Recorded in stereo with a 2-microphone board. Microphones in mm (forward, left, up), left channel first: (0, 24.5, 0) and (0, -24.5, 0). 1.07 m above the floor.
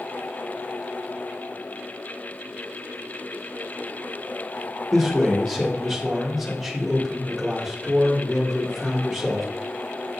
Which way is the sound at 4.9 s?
Centre (ahead or behind).